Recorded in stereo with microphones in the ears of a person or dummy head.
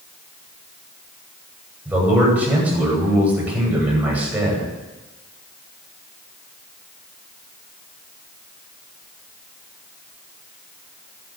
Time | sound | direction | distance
1.9 | a man speaking | 10° right (ahead or behind) | 10 m